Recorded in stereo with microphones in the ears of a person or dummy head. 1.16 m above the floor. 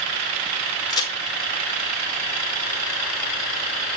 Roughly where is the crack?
Left.